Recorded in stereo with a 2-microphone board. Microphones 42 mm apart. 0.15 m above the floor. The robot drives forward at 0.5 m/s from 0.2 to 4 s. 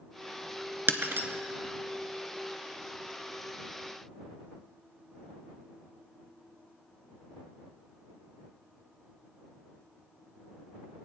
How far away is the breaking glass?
About 0.6 m.